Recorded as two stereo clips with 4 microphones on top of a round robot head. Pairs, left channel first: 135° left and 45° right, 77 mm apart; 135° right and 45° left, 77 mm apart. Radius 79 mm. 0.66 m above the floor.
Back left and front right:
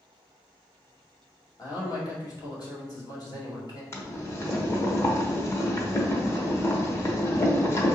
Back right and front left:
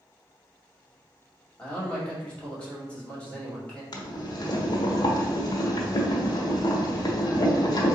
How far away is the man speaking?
About 1.9 m.